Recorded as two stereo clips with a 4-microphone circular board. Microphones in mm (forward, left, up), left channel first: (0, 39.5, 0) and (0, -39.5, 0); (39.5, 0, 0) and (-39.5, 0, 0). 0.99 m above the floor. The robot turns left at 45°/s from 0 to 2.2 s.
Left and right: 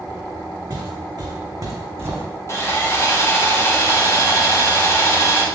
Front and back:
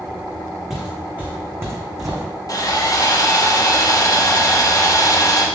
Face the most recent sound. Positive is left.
turn(degrees=40)